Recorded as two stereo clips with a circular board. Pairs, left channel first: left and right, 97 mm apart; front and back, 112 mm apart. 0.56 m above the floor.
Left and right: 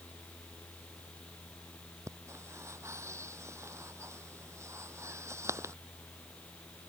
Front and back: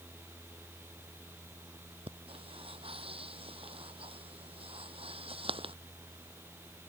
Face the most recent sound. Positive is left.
turn(degrees=-150)